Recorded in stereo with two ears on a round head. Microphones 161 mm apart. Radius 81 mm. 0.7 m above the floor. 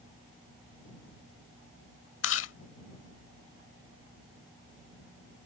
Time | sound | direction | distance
2.2 | chewing | 75° left (ahead or behind) | ?